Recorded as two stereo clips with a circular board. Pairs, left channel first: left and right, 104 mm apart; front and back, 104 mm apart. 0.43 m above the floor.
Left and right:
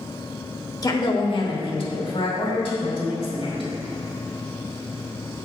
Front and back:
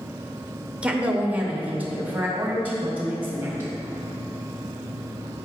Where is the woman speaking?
105° left, 1.1 m; by 3.8 s 110° left, 4 m.